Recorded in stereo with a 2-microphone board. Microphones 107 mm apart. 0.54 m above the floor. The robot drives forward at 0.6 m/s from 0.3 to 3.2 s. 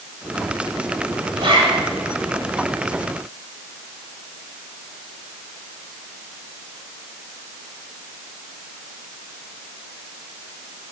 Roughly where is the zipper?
Right.